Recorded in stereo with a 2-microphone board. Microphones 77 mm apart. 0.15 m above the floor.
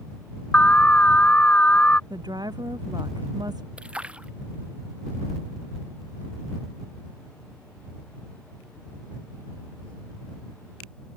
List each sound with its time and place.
0.5 s an alarm: 20° left (ahead or behind)
2.1 s a woman speaking: 65° right (ahead or behind)
3.8 s a splash: 15° right (ahead or behind)